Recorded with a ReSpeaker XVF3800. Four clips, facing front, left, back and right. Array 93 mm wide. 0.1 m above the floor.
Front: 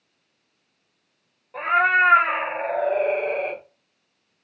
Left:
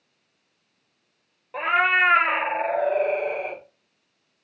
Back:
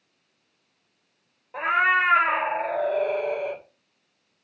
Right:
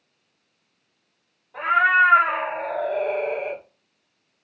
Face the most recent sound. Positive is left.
turn(degrees=-10)